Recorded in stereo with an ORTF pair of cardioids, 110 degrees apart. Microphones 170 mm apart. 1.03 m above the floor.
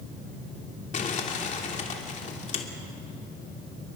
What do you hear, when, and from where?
0.9 s crumpling: 45° left, 3 m